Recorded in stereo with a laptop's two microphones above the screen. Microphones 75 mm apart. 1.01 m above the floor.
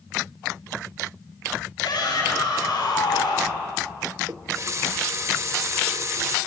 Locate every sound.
1.8 s a shout: 65° left (ahead or behind), 8.5 m; by 3.6 s 70° left (ahead or behind), 7 m
4.3 s a running tap: 40° right (ahead or behind), 0.9 m